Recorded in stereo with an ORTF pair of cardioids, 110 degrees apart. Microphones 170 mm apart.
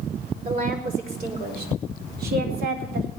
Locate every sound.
0.5 s a woman speaking: 55° right, 5 m; by 3.1 s 65° right, 4 m